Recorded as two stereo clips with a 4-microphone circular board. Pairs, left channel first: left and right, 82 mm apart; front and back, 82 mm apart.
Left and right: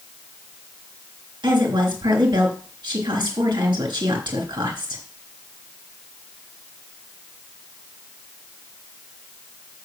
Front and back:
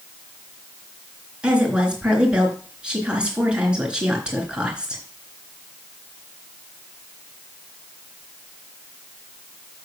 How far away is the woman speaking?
About 3.5 m.